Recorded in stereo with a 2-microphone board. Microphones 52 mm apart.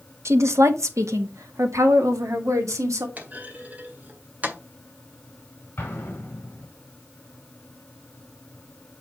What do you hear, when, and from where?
0.2 s a woman speaking: 60° right (ahead or behind), 1.2 m; by 3.1 s 85° right, 2.5 m
3.2 s a clunk: 35° right (ahead or behind), 1.9 m
5.8 s an explosion: 35° left (ahead or behind), 4.5 m